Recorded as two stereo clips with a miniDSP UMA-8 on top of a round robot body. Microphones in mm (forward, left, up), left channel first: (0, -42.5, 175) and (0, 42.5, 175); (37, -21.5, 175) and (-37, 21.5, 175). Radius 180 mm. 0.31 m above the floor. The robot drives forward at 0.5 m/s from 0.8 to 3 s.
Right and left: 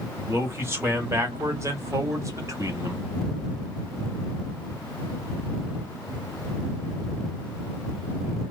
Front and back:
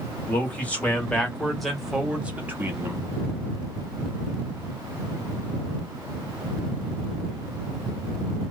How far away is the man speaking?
About 1.5 m.